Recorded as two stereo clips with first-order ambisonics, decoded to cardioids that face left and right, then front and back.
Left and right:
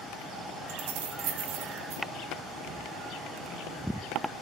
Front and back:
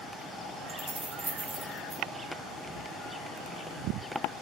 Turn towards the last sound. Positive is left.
turn(degrees=-105)